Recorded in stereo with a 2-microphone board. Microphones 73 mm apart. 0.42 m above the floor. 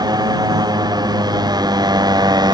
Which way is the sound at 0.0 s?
65° right (ahead or behind).